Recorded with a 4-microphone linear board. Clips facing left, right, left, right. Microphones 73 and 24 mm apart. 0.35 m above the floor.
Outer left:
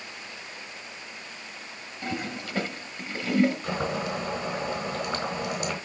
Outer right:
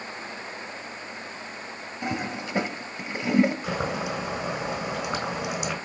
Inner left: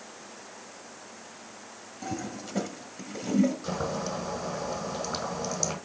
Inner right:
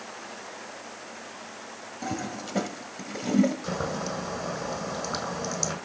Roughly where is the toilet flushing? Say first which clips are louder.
Outer right 3 dB, inner right 2 dB; right.